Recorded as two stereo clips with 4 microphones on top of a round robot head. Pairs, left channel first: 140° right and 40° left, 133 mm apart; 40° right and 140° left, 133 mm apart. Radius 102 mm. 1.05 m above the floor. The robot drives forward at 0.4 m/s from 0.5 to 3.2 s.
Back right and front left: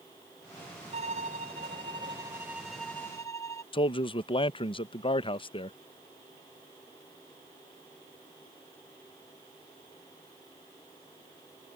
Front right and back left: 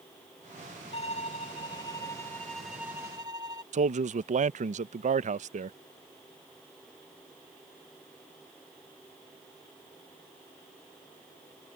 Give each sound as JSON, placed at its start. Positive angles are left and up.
{"t": 0.9, "sound": "a violin", "azimuth_deg": 0}
{"t": 3.7, "sound": "a man speaking", "azimuth_deg": 170}